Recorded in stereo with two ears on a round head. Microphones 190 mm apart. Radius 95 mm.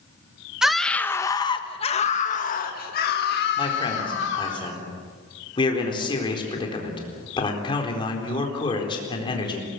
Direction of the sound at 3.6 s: 25° left (ahead or behind).